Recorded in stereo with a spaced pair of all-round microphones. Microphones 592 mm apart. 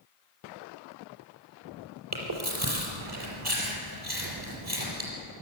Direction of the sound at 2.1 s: 40° right (ahead or behind).